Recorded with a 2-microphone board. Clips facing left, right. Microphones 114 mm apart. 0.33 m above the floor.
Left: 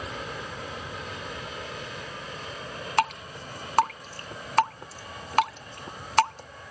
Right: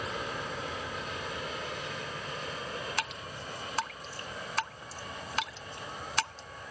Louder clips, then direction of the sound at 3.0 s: Left 11 dB; 60° left (ahead or behind).